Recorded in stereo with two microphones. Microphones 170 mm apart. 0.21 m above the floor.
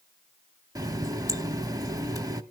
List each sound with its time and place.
0.8 s a running tap: 20° right (ahead or behind), 0.7 m